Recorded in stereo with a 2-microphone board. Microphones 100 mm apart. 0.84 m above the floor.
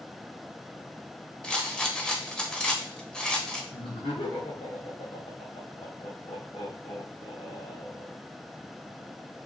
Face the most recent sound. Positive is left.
turn(degrees=55)  # may be behind; listen again after turning